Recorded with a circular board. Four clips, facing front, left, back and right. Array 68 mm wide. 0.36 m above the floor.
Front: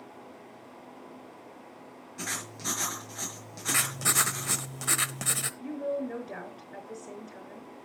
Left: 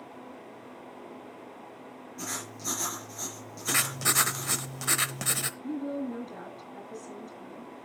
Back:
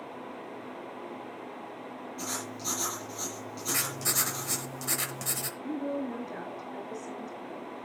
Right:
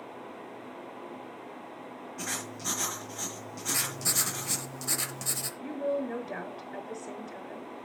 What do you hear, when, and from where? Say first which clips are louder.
2.2 s writing: right 1 dB, front 2 dB; 15° right, 5.5 m
3.7 s writing: left 6 dB, front 4 dB; 55° left, 0.8 m
5.6 s a woman speaking: right 4 dB, even; 60° right, 4.5 m